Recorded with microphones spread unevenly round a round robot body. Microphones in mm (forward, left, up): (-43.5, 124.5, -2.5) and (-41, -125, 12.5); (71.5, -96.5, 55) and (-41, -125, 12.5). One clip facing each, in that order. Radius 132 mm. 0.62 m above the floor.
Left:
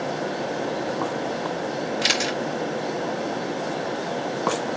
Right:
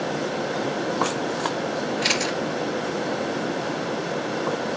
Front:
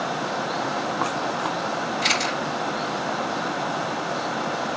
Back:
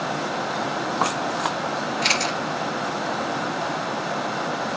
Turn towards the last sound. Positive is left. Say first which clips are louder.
# right 1 dB, even
turn(degrees=95)